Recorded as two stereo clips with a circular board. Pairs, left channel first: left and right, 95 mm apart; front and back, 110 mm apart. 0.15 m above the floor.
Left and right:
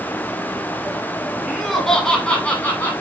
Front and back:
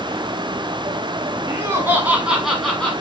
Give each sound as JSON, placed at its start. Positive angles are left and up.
{"t": 1.5, "sound": "laughter", "azimuth_deg": -175, "distance_m": 1.1}